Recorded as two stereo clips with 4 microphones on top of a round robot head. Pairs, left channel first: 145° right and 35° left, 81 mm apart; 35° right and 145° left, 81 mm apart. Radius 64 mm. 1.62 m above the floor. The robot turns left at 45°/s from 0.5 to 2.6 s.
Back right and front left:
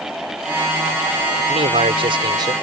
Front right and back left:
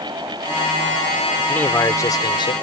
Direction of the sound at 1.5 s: 40° left.